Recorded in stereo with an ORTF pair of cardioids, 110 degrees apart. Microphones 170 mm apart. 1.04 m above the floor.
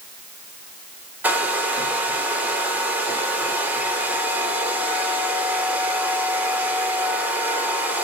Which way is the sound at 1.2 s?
10° right.